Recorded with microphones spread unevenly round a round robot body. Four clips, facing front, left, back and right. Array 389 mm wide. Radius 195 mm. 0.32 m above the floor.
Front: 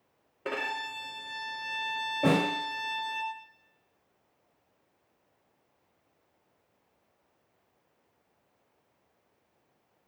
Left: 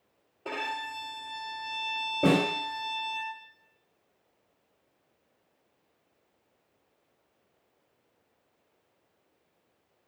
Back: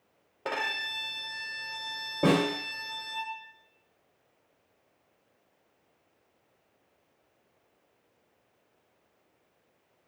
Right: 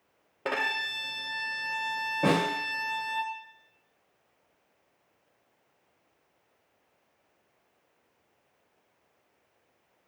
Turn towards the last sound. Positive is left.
turn(degrees=150)